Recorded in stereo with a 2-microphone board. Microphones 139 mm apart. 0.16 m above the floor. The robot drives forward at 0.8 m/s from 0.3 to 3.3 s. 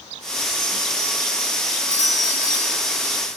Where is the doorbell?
60° right (ahead or behind), 5 m; by 3.4 s 50° right (ahead or behind), 5.5 m.